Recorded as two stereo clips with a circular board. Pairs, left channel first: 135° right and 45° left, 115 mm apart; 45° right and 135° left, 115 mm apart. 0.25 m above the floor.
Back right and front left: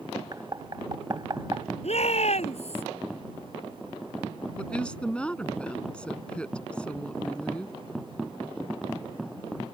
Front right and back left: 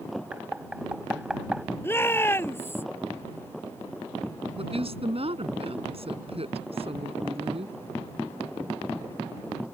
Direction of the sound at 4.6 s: 145° left.